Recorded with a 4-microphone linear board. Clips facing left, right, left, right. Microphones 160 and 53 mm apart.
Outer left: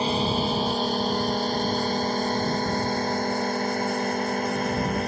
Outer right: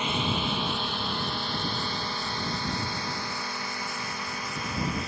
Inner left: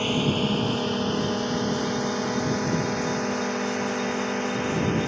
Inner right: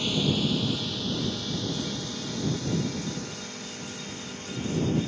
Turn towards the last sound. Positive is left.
turn(degrees=50)  # may be behind; listen again after turning